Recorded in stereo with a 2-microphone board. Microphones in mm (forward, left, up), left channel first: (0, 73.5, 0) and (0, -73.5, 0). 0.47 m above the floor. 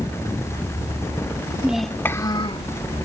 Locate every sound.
1.6 s a child speaking: 10° right (ahead or behind); by 2.7 s 45° left (ahead or behind)